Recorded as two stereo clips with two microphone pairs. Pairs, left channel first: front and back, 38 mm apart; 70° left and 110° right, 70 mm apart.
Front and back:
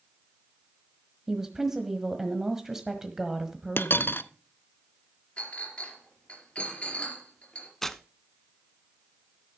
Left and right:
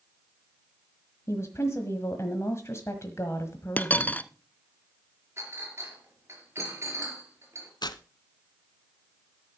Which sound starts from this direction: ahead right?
A clink, at 5.4 s.